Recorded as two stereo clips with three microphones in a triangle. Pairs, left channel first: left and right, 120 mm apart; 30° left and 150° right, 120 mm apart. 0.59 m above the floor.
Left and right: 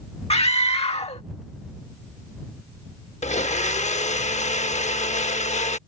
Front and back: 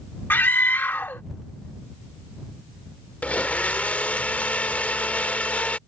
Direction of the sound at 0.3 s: 100° left.